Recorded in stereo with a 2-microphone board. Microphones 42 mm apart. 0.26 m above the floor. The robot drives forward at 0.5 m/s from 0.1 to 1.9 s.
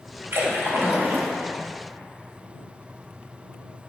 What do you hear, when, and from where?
0.3 s a splash: 65° right (ahead or behind), 1.4 m; by 1.3 s 50° right (ahead or behind), 1.6 m